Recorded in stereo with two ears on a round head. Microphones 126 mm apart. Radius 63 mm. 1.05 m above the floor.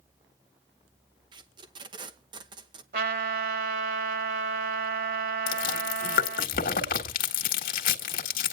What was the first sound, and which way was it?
Tape being pulled, 30° right (ahead or behind).